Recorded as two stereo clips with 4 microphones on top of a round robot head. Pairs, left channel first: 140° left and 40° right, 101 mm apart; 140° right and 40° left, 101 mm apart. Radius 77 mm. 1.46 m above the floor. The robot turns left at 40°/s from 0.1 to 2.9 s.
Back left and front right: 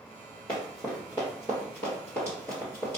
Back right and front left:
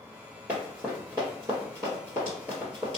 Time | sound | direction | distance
0.5 | running footsteps | 100° left | 1.8 m